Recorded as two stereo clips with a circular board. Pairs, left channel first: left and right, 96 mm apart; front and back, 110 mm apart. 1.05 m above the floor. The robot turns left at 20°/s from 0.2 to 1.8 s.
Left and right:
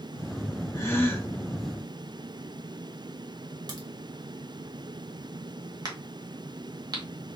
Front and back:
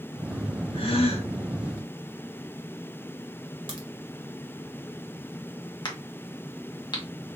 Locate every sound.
0.7 s a gasp: 30° left, 1.1 m; by 1.3 s 20° left, 1.1 m
3.7 s a crack: 135° right, 1.5 m
5.8 s a crack: 45° right, 1.2 m